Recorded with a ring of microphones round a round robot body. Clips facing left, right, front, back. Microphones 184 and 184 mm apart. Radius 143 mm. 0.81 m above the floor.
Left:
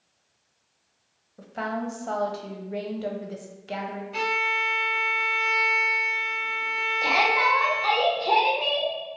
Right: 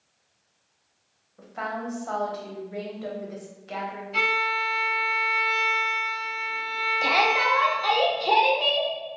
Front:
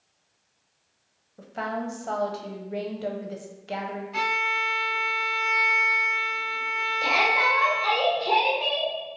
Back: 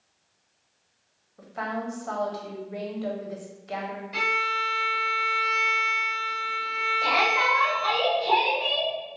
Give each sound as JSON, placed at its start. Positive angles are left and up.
{"t": 1.4, "sound": "a woman speaking", "azimuth_deg": 45, "distance_m": 0.6}
{"t": 4.1, "sound": "a violin", "azimuth_deg": 170, "distance_m": 1.9}
{"t": 7.0, "sound": "a shout", "azimuth_deg": -55, "distance_m": 0.8}